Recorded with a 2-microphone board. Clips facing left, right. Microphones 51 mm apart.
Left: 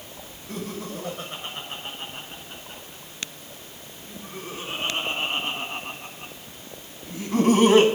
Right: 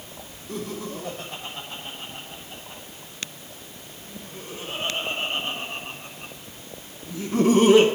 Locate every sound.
0.5 s laughter: 75° left (ahead or behind), 5.5 m; by 7.8 s 55° left (ahead or behind), 3 m